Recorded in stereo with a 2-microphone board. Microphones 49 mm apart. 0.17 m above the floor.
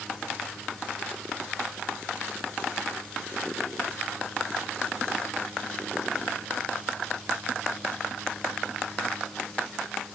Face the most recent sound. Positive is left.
No sound to turn to.